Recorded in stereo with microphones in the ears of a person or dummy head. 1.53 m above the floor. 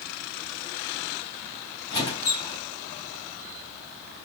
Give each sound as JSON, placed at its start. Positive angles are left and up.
{"t": 1.9, "sound": "a squeak", "side_deg": 30, "distance_m": 1.7}